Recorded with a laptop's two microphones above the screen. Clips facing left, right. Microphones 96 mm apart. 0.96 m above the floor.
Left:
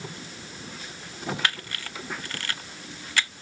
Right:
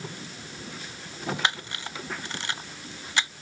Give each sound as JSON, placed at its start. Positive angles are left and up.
{"t": 1.4, "sound": "a camera shutter", "side_deg": -20}